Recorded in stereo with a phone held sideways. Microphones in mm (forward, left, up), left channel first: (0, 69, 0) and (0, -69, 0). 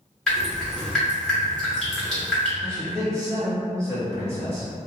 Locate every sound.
0.3 s dripping: 5° left (ahead or behind), 1.8 m
2.6 s a man speaking: 20° right (ahead or behind), 1.7 m